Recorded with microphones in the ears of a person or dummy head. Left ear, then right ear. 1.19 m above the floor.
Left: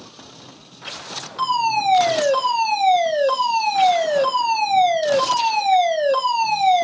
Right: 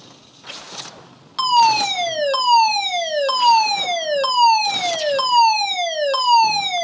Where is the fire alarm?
30° right (ahead or behind), 1.6 m.